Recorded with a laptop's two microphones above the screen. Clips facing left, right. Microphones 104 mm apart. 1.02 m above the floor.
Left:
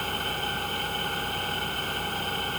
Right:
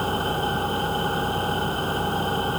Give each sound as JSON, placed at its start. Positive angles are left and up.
{"t": 0.0, "sound": "an engine running", "side_deg": -30}